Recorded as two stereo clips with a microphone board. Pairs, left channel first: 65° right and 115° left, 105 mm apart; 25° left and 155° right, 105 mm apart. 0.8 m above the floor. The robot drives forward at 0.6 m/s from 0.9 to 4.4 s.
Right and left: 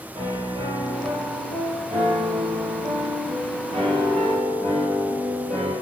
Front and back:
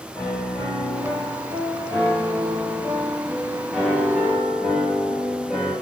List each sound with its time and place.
0.1 s a piano: 85° left, 4.5 m; by 5.7 s 115° left, 4.5 m